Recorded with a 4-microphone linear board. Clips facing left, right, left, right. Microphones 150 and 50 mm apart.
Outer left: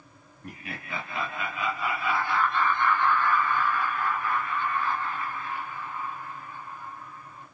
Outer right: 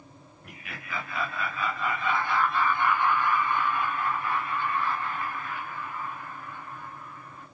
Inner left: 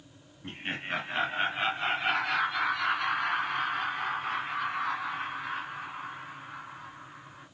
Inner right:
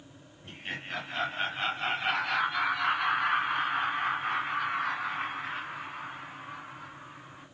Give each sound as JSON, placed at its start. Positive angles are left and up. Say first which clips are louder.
{"t": 0.4, "sound": "laughter", "louder": "outer left 4 dB, inner left 3 dB", "side_deg": 35, "distance_m": 1.8}